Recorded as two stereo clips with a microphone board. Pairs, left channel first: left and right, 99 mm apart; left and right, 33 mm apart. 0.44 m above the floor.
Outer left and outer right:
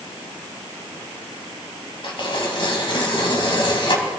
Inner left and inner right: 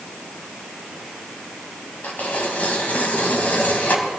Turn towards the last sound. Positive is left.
turn(degrees=55)  # may be behind; listen again after turning